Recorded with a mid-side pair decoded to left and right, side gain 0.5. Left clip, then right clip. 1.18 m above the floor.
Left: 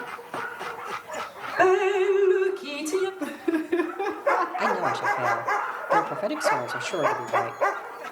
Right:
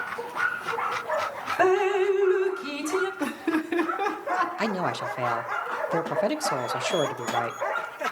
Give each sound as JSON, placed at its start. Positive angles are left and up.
{"t": 1.6, "sound": "dripping", "azimuth_deg": 5, "distance_m": 0.9}
{"t": 3.2, "sound": "laughter", "azimuth_deg": -60, "distance_m": 2.0}
{"t": 4.6, "sound": "a man speaking", "azimuth_deg": -20, "distance_m": 0.9}